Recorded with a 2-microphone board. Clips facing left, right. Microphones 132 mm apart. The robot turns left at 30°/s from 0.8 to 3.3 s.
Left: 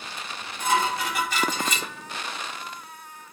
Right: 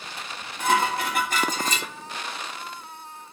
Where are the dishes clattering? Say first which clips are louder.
Right 2 dB; 115° right, 3 m; by 1.9 s 145° right, 3 m.